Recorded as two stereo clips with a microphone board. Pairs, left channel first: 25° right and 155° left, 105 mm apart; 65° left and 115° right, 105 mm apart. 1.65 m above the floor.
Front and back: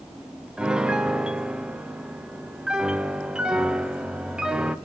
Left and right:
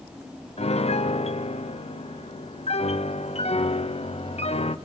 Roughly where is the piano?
Left.